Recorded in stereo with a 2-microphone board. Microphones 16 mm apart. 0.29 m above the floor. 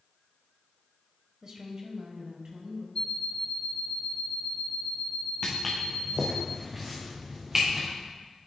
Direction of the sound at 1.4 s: 20° right (ahead or behind).